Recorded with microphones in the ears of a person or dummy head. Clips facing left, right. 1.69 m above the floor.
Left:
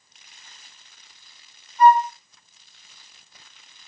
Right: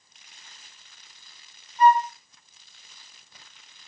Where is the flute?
60° left (ahead or behind), 0.7 m.